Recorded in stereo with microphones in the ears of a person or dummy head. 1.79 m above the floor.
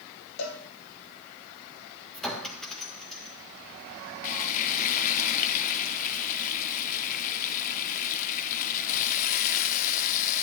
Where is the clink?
Centre (ahead or behind), 1.8 m.